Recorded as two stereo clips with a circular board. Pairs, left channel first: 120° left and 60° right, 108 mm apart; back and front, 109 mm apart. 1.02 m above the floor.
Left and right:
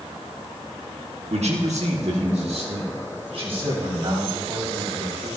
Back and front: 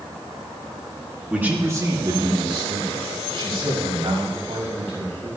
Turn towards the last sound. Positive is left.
turn(degrees=-25)